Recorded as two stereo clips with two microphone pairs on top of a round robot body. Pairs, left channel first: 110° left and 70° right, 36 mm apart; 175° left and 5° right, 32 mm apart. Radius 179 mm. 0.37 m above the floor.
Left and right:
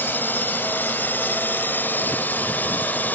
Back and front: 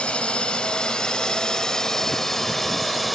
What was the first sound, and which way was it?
A drone, 125° left.